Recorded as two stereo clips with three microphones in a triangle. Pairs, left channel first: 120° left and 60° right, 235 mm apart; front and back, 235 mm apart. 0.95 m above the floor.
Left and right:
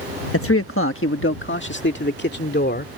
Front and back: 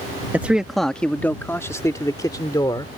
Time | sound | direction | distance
0.3 | a man speaking | 100° left | ?